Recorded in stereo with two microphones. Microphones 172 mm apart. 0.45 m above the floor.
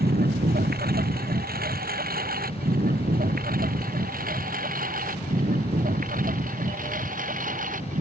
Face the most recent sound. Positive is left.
turn(degrees=-50)  # may be behind; listen again after turning